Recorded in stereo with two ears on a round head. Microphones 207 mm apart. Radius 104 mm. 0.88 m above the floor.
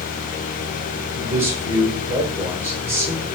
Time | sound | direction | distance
1.1 | a man speaking | 10° right (ahead or behind) | 4.5 m